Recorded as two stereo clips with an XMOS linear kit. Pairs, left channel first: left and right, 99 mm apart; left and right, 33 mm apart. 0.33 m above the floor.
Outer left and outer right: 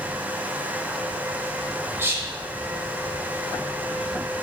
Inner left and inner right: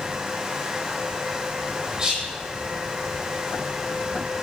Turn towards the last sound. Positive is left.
turn(degrees=-25)  # may be behind; listen again after turning